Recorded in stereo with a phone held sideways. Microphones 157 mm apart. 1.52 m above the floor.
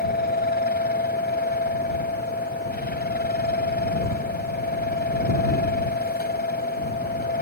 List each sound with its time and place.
0.0 s a fan: 90° left